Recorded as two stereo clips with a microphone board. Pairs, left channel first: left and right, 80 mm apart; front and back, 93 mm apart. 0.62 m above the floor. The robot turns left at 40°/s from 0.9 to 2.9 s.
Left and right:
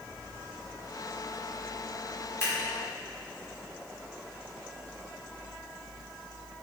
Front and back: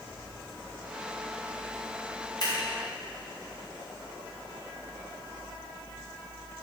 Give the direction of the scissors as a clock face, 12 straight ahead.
11 o'clock.